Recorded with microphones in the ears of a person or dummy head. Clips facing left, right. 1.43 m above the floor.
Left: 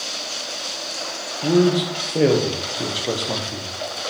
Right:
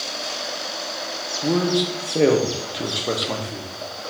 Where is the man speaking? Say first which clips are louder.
Left 4 dB; centre (ahead or behind), 0.9 m.